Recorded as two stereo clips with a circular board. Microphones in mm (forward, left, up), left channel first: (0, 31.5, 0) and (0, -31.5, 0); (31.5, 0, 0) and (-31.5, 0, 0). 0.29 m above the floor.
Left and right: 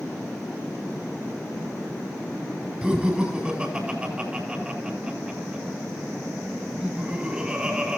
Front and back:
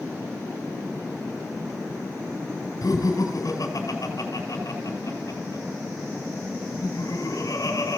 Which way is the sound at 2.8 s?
25° right.